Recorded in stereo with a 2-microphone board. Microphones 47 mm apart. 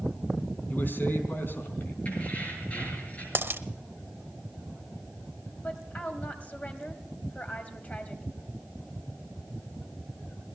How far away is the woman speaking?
About 2.5 m.